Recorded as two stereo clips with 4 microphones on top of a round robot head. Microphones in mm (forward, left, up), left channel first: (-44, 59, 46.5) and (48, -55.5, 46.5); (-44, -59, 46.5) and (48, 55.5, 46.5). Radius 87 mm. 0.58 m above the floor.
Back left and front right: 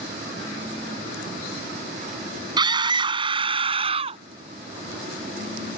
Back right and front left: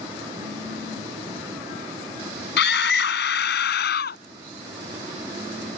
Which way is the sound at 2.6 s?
115° right.